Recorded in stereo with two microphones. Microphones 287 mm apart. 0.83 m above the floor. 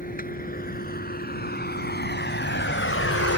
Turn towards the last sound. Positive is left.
turn(degrees=60)  # may be behind; listen again after turning